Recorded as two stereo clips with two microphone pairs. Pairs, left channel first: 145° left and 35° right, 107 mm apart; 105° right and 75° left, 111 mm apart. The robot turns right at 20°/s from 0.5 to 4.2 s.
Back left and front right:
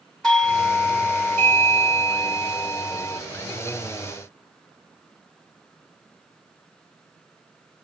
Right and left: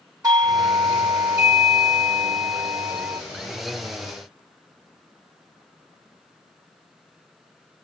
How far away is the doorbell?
About 2 m.